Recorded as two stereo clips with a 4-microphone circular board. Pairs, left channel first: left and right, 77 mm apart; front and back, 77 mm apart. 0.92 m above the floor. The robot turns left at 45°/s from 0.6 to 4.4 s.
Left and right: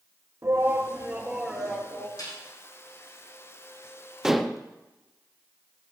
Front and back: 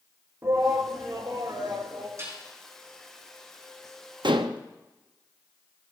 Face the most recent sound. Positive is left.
turn(degrees=180)